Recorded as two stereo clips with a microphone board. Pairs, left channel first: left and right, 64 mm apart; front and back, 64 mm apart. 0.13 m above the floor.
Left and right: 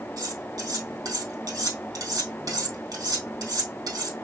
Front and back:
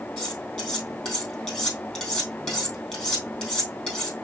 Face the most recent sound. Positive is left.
turn(degrees=-75)